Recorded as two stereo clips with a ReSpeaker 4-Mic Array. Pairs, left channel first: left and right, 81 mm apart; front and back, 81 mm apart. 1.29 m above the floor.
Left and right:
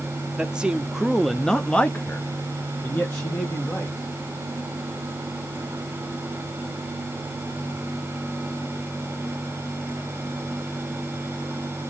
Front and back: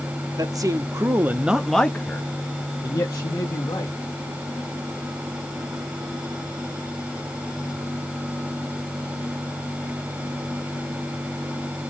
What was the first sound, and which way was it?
A man speaking, 165° right.